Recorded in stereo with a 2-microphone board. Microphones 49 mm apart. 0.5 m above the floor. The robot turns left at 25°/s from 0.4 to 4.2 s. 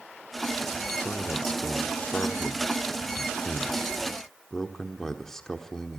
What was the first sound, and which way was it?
A man speaking, 40° left (ahead or behind).